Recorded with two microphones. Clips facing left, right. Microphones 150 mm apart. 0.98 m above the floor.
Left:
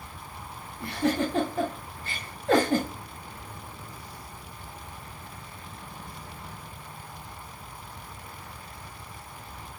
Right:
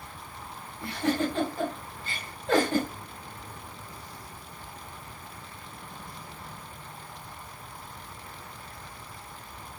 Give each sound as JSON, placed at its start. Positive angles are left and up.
{"t": 0.8, "sound": "a giggle", "side_deg": 75, "distance_m": 2.0}